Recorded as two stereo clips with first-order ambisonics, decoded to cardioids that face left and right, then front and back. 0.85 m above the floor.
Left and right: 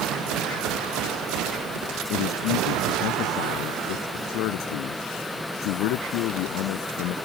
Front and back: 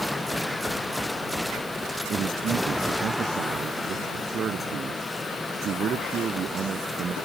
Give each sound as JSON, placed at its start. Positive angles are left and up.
{"t": 2.1, "sound": "a man speaking", "azimuth_deg": 120}